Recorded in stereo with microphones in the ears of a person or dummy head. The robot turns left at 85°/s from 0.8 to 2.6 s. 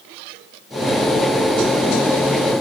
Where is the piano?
No piano in this recording.